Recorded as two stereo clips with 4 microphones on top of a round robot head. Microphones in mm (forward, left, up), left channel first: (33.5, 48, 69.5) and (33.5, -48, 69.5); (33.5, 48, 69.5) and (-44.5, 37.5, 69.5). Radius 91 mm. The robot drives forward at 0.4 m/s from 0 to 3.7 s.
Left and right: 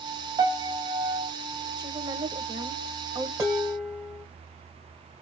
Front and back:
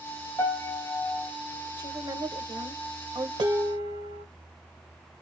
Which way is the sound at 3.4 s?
155° right.